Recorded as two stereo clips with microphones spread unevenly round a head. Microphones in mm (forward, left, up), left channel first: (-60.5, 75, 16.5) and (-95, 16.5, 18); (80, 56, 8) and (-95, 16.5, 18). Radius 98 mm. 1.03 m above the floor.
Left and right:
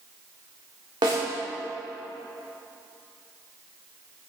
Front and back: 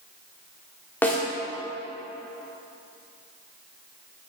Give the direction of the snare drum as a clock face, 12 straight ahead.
2 o'clock.